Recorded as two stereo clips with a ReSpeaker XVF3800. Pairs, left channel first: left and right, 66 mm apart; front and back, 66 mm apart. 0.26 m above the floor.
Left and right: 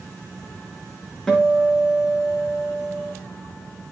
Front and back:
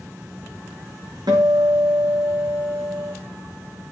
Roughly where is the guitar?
Behind.